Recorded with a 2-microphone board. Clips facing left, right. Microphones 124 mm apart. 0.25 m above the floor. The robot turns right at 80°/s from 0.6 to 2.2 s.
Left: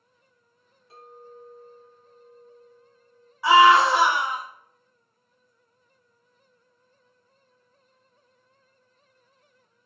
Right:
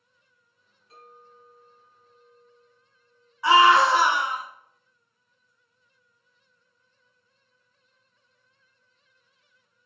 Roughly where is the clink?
Ahead left.